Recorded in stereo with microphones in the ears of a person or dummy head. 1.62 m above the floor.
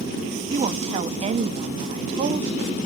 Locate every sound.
0.5 s a woman speaking: 35° right (ahead or behind), 1.0 m